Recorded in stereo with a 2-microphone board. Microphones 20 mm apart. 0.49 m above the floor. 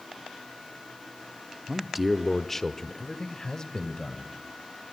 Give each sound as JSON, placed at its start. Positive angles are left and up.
{"t": 1.7, "sound": "a man speaking", "side_deg": -15, "distance_m": 0.7}